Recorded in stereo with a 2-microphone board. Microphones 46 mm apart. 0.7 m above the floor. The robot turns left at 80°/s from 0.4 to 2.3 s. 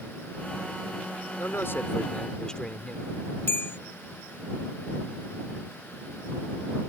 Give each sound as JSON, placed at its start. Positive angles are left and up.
{"t": 1.4, "sound": "a man speaking", "azimuth_deg": 95}
{"t": 3.5, "sound": "a bell", "side_deg": 60}